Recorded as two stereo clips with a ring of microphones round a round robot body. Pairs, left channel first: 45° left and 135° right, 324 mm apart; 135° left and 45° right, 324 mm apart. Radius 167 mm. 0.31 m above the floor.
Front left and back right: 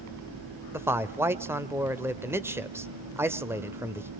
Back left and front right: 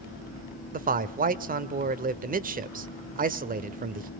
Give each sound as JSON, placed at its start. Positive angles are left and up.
{"t": 0.7, "sound": "a man speaking", "azimuth_deg": -60, "distance_m": 1.0}